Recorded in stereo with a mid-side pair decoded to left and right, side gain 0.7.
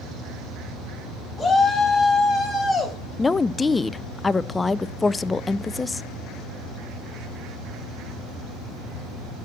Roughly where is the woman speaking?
Ahead.